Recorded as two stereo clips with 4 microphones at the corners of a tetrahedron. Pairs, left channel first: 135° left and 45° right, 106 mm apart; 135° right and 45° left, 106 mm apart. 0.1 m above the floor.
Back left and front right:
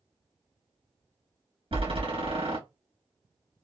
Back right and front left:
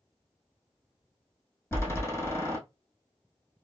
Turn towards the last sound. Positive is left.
turn(degrees=-65)